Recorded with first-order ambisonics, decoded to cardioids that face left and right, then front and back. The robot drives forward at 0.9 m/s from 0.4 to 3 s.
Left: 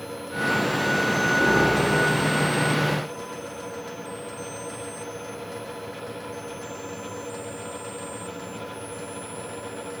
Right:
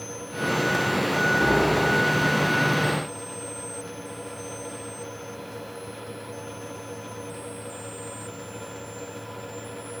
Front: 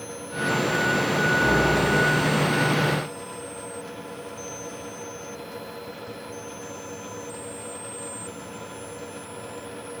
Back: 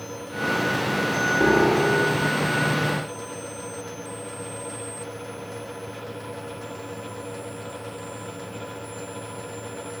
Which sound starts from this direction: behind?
A piano, at 1.4 s.